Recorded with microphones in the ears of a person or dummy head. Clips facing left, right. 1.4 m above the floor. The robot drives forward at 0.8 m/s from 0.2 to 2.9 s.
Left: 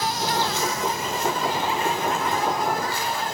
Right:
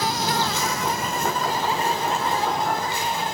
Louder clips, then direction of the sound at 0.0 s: Right 1 dB; 65° right (ahead or behind).